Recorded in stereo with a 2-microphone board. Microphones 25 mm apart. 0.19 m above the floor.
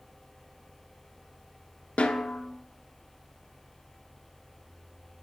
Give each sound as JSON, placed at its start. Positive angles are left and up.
{"t": 2.0, "sound": "a snare drum", "side_deg": 80, "distance_m": 0.5}